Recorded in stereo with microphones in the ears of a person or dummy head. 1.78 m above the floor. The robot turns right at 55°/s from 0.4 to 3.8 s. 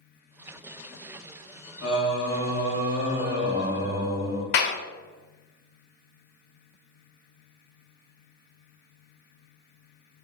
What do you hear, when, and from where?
1.8 s singing: 110° left, 1.7 m; by 4.4 s 140° right, 1.7 m
4.5 s a clap: 60° left (ahead or behind), 0.6 m